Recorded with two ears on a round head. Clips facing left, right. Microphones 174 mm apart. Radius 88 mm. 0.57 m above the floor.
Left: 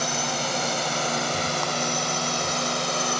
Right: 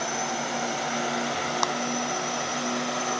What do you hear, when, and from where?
0.0 s a drone: 50° left (ahead or behind)
1.6 s a clap: 70° right (ahead or behind)